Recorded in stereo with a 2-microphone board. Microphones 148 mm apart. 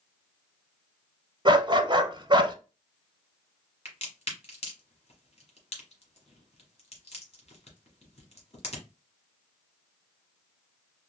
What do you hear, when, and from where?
1.4 s a dog barking: 35° right (ahead or behind), 0.5 m
3.9 s a crack: 50° left (ahead or behind), 1.4 m